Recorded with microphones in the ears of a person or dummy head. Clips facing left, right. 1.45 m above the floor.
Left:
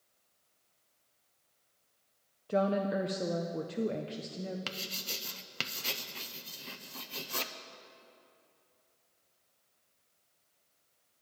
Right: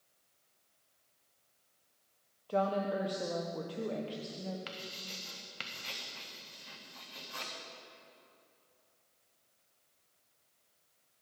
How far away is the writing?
About 0.6 m.